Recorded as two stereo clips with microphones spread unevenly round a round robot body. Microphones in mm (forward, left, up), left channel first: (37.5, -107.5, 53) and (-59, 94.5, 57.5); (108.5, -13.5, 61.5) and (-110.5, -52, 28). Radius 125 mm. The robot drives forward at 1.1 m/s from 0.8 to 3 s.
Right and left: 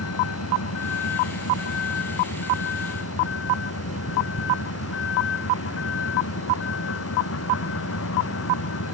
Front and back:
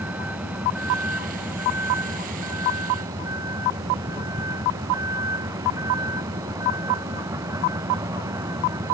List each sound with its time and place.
0.0 s a vehicle: 85° right; by 8.9 s 95° right